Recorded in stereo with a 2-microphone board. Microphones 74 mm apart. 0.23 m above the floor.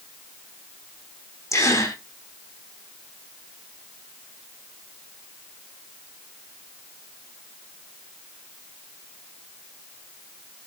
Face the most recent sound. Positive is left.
turn(degrees=50)  # may be behind; listen again after turning